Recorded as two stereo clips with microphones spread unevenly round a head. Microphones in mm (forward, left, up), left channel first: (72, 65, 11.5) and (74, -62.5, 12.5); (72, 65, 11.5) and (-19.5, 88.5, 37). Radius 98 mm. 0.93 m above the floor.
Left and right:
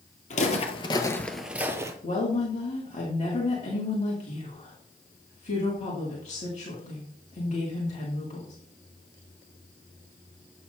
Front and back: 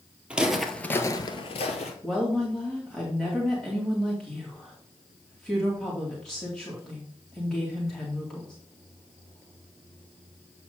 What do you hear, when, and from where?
0.3 s footsteps: 100° left, 1.5 m; by 1.9 s 30° right, 1.5 m
2.0 s a woman speaking: 65° left, 2 m